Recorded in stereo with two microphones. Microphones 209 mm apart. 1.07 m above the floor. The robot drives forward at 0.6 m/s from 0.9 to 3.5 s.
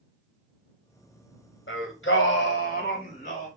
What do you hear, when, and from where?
1.7 s singing: 65° left (ahead or behind), 0.9 m; by 3.5 s 35° left (ahead or behind), 1.3 m